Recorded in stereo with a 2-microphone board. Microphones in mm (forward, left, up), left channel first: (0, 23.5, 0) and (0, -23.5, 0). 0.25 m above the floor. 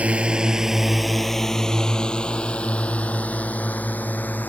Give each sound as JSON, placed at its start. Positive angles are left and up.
{"t": 0.0, "sound": "a drone", "side_deg": -30}